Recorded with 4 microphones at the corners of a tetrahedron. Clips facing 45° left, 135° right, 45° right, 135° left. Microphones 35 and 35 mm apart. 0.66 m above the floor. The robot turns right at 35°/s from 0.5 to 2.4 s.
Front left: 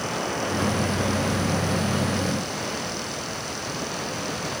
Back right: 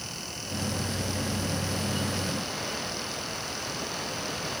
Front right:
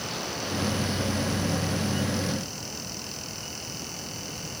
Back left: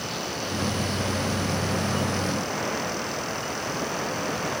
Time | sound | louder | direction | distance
0.0 | running water | front left 12 dB, back left 2 dB | 55° left | ?